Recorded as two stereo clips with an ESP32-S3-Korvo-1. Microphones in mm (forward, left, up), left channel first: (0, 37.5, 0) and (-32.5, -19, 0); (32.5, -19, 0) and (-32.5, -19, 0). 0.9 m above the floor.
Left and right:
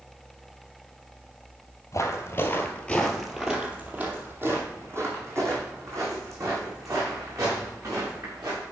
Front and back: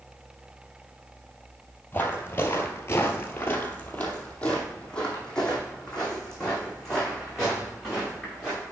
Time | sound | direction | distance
1.9 | footsteps | 50° left | 1.3 m